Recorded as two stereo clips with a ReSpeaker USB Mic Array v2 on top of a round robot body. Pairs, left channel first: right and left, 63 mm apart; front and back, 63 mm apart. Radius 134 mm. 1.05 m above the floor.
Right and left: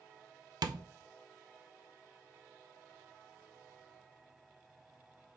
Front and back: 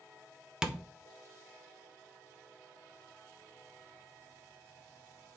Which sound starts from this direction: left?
Tapping, at 0.6 s.